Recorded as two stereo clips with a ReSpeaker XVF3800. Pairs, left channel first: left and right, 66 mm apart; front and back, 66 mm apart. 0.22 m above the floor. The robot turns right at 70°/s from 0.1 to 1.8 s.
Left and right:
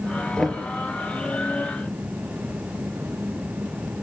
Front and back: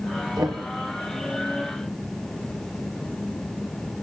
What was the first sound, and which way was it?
Knocking, 165° left.